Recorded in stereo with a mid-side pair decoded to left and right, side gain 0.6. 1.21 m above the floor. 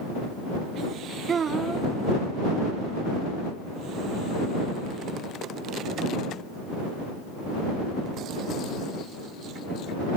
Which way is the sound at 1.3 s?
35° right.